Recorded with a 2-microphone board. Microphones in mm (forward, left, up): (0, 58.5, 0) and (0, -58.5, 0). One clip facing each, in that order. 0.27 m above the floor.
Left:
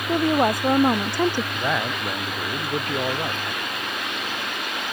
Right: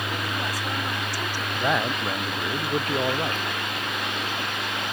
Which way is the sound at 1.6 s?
5° right (ahead or behind).